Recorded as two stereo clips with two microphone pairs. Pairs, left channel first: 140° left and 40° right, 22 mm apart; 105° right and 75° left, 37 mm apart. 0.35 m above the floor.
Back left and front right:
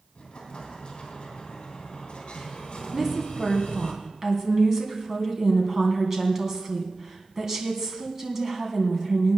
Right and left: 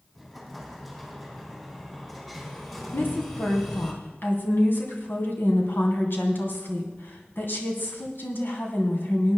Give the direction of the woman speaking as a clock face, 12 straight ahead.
4 o'clock.